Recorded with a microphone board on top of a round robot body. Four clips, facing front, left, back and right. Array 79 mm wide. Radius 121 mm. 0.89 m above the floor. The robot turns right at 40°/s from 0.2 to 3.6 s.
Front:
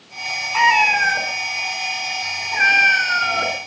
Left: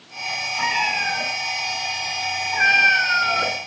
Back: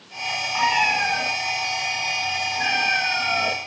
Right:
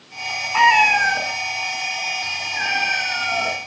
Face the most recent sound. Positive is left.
turn(degrees=50)